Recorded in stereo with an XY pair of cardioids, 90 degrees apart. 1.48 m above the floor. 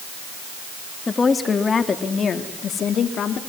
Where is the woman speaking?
35° left, 3 m; by 3.4 s 65° left, 3.5 m.